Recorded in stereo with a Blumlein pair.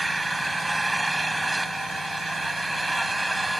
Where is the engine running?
5° right.